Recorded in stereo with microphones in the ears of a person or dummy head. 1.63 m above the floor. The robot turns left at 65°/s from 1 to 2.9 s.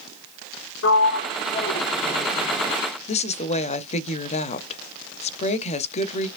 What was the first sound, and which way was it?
A sliding door, 70° left (ahead or behind).